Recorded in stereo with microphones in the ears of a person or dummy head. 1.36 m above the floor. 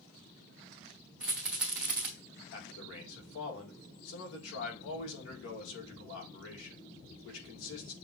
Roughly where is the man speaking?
Left.